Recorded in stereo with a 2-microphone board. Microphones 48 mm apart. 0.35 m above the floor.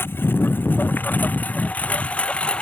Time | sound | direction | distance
0.0 | a lawn mower | 50° left (ahead or behind) | ?